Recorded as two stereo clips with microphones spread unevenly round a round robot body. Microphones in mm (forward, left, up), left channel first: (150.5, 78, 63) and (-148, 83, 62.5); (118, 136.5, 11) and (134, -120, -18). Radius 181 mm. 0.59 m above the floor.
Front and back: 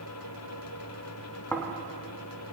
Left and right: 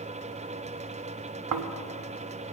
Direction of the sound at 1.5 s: 85° right.